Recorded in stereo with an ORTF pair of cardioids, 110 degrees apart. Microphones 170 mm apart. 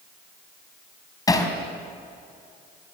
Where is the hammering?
20° left, 4 m.